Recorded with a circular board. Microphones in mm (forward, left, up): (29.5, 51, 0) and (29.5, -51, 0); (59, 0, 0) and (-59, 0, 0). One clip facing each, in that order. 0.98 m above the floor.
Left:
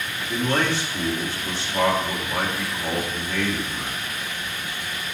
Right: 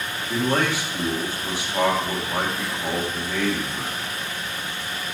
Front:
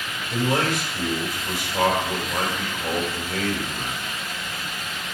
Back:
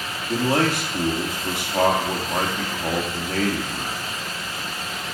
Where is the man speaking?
165° right, 2 m.